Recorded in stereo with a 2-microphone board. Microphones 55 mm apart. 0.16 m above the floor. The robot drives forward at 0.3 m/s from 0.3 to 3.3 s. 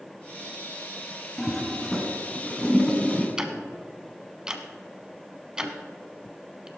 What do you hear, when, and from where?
1.4 s a toilet flushing: 5° left (ahead or behind), 1.8 m
3.4 s ticking: 15° right (ahead or behind), 1.0 m